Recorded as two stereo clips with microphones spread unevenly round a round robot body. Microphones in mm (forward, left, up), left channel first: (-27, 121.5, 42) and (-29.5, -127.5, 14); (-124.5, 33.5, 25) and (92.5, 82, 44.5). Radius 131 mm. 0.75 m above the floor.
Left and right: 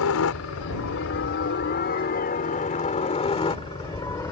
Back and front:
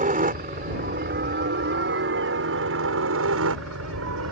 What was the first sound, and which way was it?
A helicopter, 60° left.